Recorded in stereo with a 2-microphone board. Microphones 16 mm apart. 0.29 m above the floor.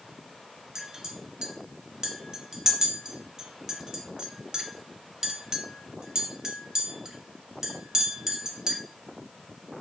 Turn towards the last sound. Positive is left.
turn(degrees=-40)  # may be behind; listen again after turning